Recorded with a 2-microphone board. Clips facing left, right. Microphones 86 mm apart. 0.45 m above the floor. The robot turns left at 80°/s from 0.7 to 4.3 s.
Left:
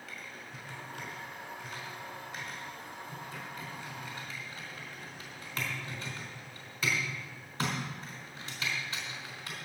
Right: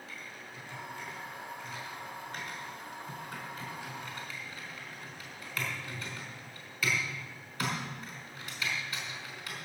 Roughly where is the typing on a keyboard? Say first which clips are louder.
Even; left.